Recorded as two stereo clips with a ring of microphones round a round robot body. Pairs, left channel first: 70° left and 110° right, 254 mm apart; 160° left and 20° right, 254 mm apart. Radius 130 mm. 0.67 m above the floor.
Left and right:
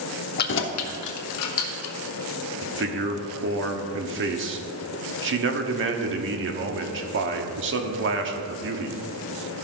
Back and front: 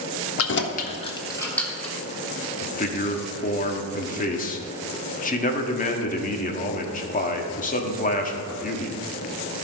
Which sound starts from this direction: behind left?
Keys jangling, at 0.4 s.